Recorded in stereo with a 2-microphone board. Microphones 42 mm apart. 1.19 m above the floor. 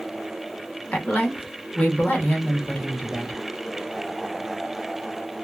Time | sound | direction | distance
0.9 | a woman speaking | 45° left (ahead or behind) | 1.1 m